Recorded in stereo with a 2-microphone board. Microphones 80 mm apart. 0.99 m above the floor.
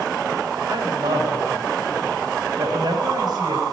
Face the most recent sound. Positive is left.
turn(degrees=-65)  # may be behind; listen again after turning